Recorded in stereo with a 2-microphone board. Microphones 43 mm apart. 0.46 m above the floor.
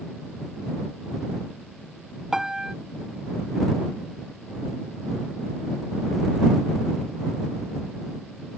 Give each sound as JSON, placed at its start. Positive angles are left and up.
{"t": 2.3, "sound": "a piano", "side_deg": -10}